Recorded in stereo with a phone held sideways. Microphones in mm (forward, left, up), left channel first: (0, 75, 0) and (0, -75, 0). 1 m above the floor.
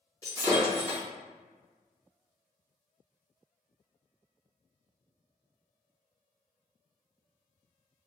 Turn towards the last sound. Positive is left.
turn(degrees=25)  # may be behind; listen again after turning